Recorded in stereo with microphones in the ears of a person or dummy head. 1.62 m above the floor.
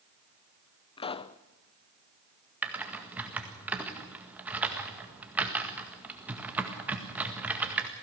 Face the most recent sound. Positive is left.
turn(degrees=-5)  # may be behind; listen again after turning